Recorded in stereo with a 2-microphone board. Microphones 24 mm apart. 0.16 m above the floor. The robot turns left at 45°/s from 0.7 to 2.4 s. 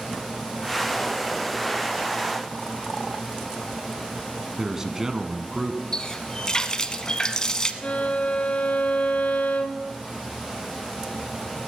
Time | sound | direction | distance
4.6 | a man speaking | 20° right (ahead or behind) | 1.1 m
5.9 | a running tap | 30° left (ahead or behind) | 0.9 m
7.8 | a violin | 60° left (ahead or behind) | 1.0 m